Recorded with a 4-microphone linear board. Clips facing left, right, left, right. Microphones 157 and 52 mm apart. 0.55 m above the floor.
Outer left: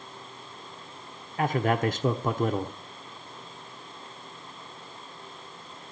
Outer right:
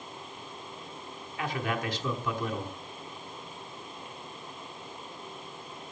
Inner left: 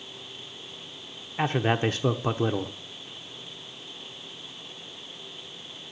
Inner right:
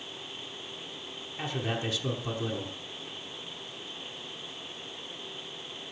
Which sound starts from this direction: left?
A man speaking, at 1.4 s.